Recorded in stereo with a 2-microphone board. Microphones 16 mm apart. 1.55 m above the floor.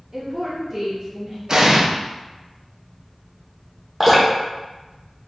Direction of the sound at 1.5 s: 40° right (ahead or behind).